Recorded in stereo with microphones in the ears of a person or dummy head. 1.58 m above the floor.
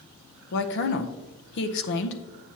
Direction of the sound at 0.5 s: 65° left (ahead or behind).